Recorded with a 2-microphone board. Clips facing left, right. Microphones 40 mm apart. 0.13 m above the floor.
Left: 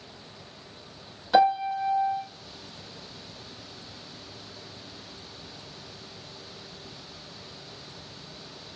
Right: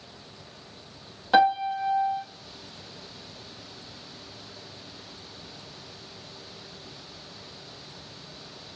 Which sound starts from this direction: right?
A piano, at 1.3 s.